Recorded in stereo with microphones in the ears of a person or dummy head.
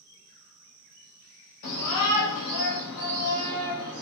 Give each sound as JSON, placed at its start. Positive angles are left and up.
{"t": 1.6, "sound": "a shout", "side_deg": 70, "distance_m": 1.1}